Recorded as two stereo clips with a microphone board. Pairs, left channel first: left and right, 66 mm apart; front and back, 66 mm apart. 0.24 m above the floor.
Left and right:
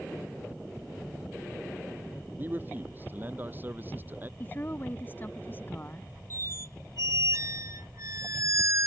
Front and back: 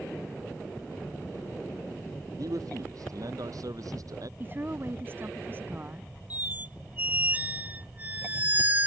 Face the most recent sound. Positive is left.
turn(degrees=-120)